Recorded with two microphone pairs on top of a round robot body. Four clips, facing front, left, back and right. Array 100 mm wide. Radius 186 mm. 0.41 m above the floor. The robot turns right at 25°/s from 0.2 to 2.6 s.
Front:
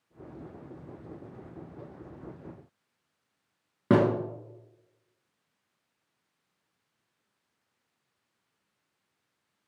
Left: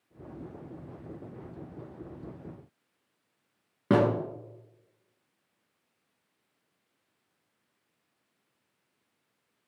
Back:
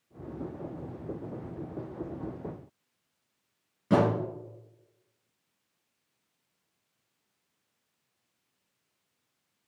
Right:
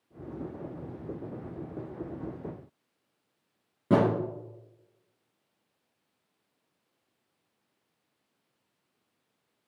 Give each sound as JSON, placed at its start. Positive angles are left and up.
{"t": 3.9, "sound": "a thud", "azimuth_deg": 25, "distance_m": 4.5}